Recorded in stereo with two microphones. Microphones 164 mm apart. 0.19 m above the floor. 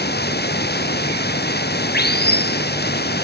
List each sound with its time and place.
0.0 s running water: 80° left